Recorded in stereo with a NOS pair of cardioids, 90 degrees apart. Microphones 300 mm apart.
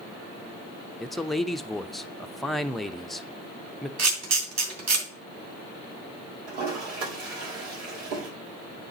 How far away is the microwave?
No microwave in this recording.